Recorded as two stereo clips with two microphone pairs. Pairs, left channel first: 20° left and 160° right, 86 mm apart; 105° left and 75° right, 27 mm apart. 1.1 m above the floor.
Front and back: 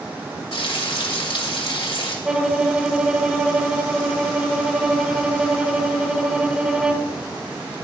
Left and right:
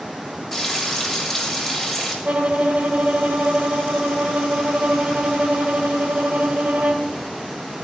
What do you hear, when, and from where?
0.5 s frying: 20° left, 2.5 m
2.2 s a violin: 85° right, 1.1 m